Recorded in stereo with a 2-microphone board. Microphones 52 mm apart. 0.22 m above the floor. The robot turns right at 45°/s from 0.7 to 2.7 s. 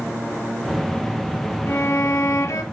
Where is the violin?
55° left, 1.1 m; by 2.6 s 100° left, 1.1 m.